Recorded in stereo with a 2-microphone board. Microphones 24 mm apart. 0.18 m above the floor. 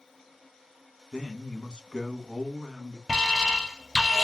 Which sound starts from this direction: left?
A man speaking, at 1.1 s.